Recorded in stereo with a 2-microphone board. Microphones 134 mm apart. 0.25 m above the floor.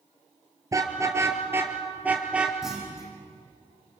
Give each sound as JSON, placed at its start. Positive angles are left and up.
{"t": 0.7, "sound": "a car horn", "side_deg": -25, "distance_m": 2.5}
{"t": 2.6, "sound": "a clunk", "side_deg": -5, "distance_m": 8.5}